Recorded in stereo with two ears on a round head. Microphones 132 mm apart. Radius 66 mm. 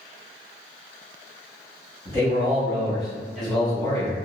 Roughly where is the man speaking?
Right.